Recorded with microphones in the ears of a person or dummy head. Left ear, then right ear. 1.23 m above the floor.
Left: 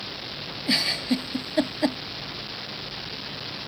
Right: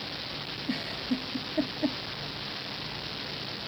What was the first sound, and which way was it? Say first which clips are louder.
A giggle: left 11 dB; 55° left (ahead or behind).